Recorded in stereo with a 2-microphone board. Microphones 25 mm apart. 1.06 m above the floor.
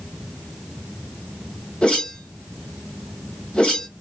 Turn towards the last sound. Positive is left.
turn(degrees=50)  # may be behind; listen again after turning